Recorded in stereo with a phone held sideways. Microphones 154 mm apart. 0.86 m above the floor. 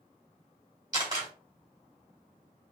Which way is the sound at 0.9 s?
25° right (ahead or behind).